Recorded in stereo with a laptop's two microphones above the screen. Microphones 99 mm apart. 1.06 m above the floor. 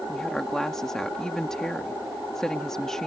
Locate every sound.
0.1 s a woman speaking: 5° left (ahead or behind)